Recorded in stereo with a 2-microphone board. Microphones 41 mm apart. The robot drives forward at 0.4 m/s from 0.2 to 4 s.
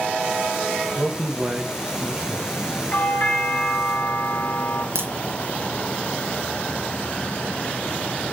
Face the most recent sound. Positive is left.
turn(degrees=-75)  # may be behind; listen again after turning